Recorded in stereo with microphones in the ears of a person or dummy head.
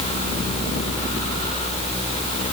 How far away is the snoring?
I don't hear snoring.